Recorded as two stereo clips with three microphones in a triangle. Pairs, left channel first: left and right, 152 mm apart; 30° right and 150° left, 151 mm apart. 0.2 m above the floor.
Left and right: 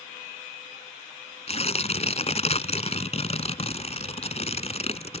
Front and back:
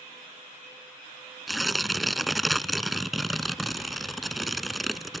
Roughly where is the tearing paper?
Ahead left.